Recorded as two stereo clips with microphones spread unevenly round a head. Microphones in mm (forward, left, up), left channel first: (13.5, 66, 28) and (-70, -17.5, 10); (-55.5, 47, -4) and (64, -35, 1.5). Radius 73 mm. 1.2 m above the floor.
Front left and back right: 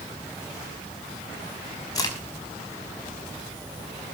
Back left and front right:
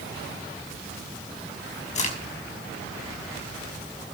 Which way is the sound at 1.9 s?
100° left.